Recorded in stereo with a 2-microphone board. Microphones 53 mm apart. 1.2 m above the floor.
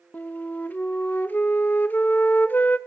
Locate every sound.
0.1 s a flute: 35° left (ahead or behind), 0.6 m